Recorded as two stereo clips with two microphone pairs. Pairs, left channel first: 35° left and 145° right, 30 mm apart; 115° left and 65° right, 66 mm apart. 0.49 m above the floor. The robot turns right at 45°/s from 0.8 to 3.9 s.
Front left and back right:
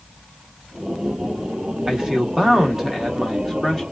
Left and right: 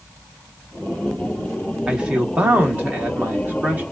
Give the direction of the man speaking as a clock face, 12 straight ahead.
4 o'clock.